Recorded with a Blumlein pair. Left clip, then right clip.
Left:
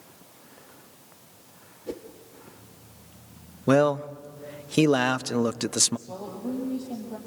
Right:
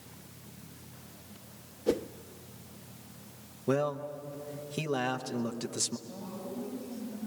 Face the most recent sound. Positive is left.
turn(degrees=35)